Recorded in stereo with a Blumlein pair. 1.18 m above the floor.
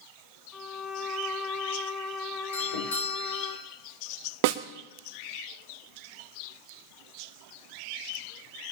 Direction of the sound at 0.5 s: 10° left.